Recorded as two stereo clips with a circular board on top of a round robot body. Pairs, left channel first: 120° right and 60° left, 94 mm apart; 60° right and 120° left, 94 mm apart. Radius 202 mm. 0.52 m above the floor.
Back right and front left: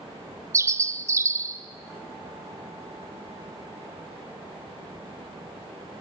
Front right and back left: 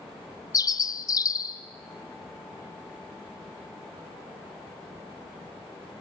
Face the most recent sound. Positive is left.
turn(degrees=-5)